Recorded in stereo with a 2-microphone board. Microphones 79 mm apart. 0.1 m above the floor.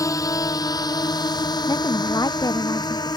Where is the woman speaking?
60° left (ahead or behind).